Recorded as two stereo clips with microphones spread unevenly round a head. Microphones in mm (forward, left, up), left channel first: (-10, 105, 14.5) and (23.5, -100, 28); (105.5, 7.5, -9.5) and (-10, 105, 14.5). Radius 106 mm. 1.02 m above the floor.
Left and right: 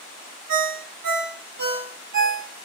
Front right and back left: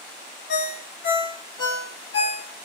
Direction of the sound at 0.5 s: 85° right.